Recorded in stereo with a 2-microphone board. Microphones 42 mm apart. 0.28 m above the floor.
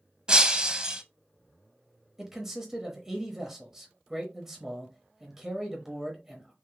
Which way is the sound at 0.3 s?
25° right (ahead or behind).